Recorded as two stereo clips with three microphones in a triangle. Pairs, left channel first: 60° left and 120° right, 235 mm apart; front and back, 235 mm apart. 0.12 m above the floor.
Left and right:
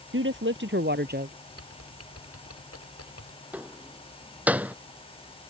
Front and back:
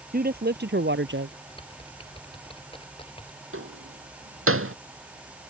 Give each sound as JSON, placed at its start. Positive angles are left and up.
{"t": 0.1, "sound": "a woman speaking", "azimuth_deg": -135}
{"t": 1.5, "sound": "typing on a keyboard", "azimuth_deg": 70}
{"t": 3.5, "sound": "a door slam", "azimuth_deg": 155}